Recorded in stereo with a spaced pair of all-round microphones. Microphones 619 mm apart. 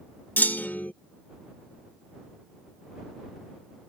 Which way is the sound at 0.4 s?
5° left (ahead or behind).